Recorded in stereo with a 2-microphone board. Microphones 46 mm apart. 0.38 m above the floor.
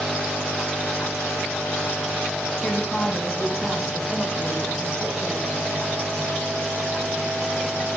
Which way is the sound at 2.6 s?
25° left (ahead or behind).